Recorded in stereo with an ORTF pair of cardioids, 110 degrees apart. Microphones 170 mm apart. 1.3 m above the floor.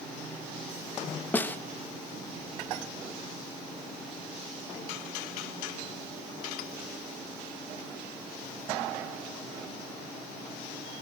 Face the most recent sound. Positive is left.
turn(degrees=10)